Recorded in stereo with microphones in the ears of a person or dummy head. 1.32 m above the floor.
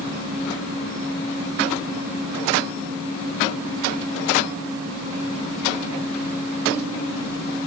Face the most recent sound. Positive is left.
No sound to turn to.